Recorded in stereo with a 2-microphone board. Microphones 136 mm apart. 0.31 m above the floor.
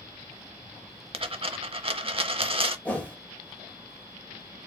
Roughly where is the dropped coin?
Right.